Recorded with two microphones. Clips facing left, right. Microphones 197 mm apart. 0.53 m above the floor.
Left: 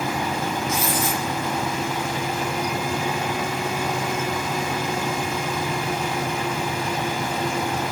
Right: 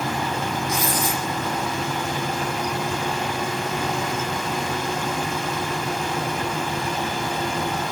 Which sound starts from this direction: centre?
Writing, at 0.7 s.